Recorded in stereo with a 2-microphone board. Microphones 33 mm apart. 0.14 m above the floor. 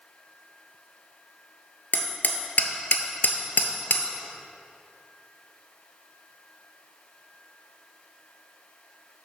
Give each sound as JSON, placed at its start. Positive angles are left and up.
{"t": 1.9, "sound": "hammering", "side_deg": 70, "distance_m": 0.8}